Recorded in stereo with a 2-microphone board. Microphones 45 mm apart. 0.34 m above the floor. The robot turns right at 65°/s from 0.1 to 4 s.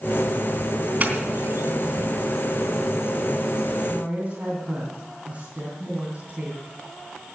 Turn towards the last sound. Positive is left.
turn(degrees=-30)  # may be behind; listen again after turning